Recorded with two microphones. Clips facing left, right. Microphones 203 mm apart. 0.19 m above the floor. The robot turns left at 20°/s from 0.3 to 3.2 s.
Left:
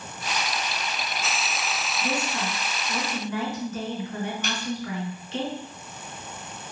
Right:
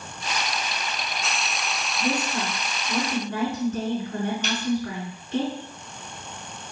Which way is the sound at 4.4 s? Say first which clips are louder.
Right 3 dB; 55° left (ahead or behind).